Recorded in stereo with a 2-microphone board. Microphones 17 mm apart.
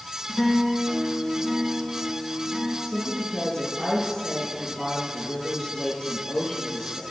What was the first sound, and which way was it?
A guitar, 45° left (ahead or behind).